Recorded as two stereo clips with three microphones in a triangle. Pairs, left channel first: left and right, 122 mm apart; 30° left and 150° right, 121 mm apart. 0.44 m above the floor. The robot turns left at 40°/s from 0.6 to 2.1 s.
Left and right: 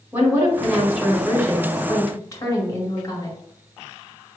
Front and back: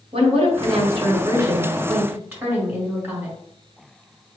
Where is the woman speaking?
160° right, 1.9 m; by 3.4 s 140° left, 1.9 m.